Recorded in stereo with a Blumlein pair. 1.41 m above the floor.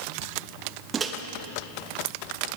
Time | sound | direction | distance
0.9 | a microwave | 20° right | 0.6 m